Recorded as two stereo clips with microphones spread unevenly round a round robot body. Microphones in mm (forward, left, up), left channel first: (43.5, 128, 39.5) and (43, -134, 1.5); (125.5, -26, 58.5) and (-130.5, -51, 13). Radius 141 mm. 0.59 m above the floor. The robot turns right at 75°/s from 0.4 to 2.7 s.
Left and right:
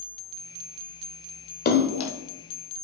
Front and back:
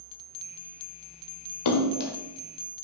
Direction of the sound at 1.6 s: 35° left.